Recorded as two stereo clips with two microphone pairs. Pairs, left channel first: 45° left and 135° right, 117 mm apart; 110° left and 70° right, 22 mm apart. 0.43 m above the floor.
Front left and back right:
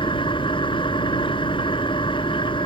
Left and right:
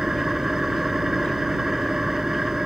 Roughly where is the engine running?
Ahead.